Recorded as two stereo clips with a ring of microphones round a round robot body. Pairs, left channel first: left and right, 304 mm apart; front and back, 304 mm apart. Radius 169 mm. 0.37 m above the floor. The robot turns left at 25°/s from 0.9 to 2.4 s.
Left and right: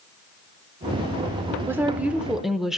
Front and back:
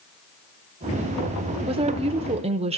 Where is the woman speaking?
160° right, 0.9 m; by 2.8 s 175° right, 0.9 m.